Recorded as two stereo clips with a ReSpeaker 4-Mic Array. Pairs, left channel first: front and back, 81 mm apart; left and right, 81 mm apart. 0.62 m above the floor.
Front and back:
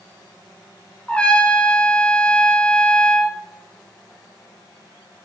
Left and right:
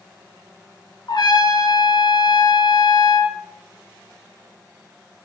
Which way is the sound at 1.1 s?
75° left.